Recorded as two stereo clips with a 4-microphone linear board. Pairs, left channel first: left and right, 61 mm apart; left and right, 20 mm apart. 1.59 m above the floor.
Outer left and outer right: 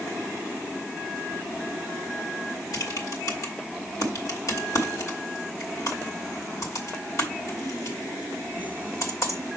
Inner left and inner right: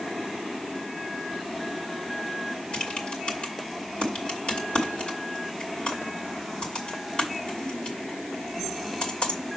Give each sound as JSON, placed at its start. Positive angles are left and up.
{"t": 2.7, "sound": "typing on a keyboard", "side_deg": 65, "distance_m": 2.5}